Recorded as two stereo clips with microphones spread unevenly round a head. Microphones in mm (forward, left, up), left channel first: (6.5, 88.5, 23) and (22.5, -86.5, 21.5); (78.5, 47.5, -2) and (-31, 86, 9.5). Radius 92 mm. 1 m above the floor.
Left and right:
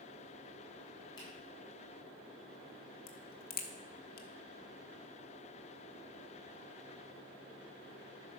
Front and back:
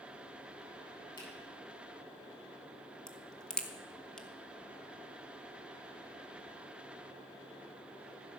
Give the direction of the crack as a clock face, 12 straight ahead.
10 o'clock.